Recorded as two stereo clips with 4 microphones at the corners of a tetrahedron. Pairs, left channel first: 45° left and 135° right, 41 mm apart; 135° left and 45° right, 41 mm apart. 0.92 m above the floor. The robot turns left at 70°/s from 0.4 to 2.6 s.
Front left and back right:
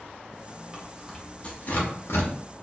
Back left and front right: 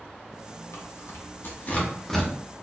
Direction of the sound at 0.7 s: 155° left.